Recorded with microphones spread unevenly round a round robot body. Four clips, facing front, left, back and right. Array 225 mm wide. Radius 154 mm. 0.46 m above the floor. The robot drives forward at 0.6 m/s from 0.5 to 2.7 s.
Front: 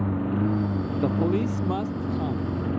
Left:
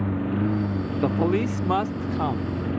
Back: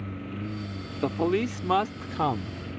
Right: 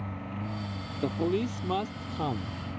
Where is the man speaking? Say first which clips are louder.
Left 5 dB, even; 115° left; by 2.6 s 160° left.